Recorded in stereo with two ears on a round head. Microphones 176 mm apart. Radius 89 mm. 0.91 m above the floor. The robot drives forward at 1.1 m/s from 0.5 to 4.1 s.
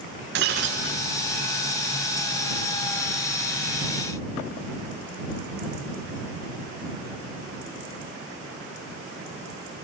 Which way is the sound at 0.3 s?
55° right (ahead or behind).